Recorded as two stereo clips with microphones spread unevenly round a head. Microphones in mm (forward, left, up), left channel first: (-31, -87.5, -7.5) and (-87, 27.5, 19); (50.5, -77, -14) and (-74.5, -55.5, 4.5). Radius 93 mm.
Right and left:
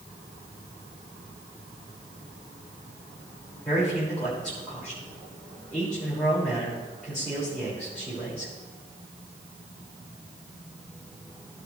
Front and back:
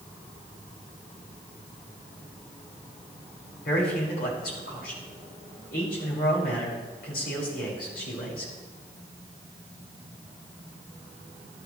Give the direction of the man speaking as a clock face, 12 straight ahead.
11 o'clock.